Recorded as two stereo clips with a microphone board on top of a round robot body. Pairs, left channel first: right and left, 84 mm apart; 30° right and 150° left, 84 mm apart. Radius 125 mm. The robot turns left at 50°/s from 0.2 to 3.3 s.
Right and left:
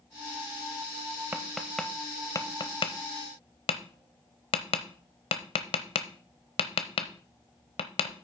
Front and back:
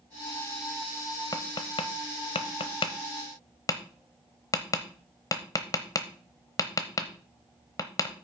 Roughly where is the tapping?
Ahead.